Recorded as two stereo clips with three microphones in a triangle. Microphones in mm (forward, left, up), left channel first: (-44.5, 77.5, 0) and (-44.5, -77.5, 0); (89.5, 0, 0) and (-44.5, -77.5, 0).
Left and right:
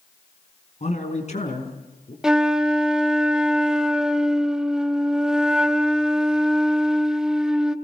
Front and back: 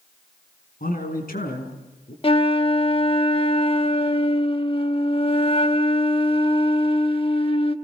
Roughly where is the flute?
Ahead.